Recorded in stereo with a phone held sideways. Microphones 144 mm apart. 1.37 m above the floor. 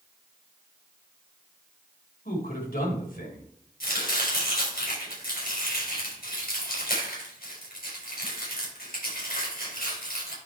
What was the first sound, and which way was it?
A man speaking, 75° left (ahead or behind).